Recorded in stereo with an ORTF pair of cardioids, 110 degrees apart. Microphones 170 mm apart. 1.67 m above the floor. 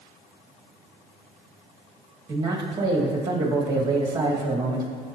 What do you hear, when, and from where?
2.3 s a man speaking: 25° right, 2.0 m